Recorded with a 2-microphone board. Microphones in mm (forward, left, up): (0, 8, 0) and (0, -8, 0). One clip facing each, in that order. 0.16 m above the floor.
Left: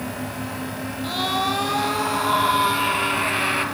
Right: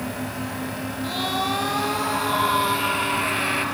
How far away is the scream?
About 6 m.